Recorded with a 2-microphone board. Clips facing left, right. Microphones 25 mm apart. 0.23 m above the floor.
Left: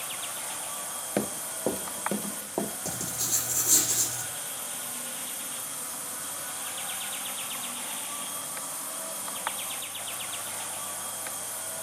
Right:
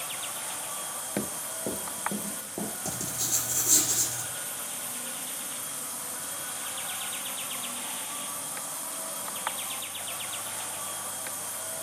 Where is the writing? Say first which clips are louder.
Even; 10° right (ahead or behind), 6.5 m.